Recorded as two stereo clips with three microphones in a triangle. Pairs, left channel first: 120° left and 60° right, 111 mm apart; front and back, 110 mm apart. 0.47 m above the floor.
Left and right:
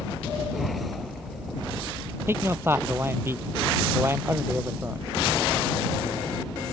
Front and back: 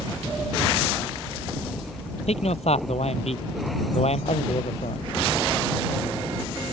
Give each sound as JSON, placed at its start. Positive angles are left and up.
{"t": 2.3, "sound": "a man speaking", "azimuth_deg": 5}